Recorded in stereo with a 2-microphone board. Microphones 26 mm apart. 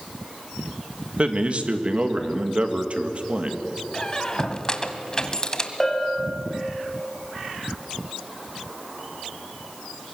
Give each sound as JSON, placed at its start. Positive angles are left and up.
{"t": 1.2, "sound": "a man speaking", "side_deg": -40, "distance_m": 1.7}
{"t": 3.9, "sound": "a squeak", "side_deg": 20, "distance_m": 1.5}
{"t": 5.8, "sound": "a bell", "side_deg": 5, "distance_m": 2.5}